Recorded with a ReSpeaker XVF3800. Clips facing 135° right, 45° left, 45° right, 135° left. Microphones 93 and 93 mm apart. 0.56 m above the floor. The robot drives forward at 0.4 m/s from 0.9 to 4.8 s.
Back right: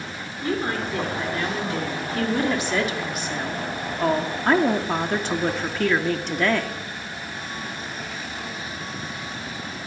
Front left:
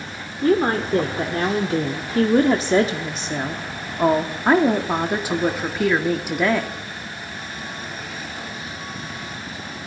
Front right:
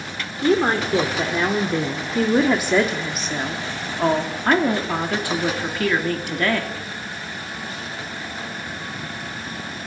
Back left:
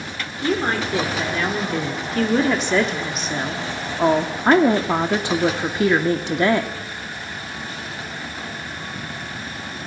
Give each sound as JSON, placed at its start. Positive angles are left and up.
{"t": 0.4, "sound": "a woman speaking", "azimuth_deg": 20, "distance_m": 1.8}